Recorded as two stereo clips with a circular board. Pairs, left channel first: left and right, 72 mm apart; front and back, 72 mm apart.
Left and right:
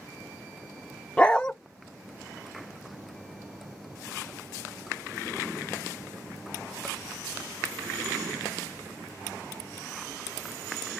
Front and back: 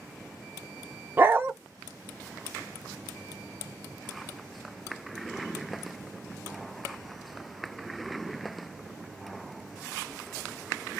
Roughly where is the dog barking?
Behind left.